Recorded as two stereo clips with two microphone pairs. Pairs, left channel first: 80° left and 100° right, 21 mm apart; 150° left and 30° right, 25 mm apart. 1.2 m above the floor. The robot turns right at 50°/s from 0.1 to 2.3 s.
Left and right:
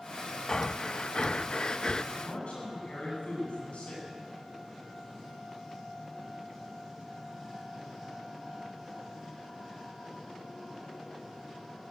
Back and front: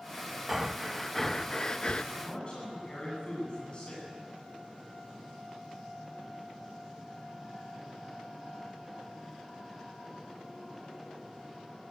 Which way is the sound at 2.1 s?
90° left.